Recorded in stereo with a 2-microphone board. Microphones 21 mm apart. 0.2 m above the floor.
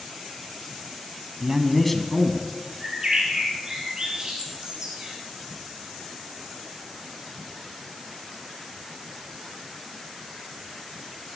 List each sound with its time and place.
1.4 s a man speaking: 15° right (ahead or behind), 1.2 m; by 2.4 s 30° left (ahead or behind), 1.9 m
2.8 s a bird: 35° right (ahead or behind), 4 m